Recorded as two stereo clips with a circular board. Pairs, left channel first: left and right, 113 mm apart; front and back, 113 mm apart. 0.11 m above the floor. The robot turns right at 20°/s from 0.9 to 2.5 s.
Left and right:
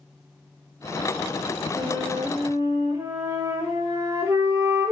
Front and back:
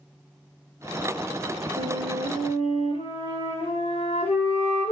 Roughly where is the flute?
Ahead right.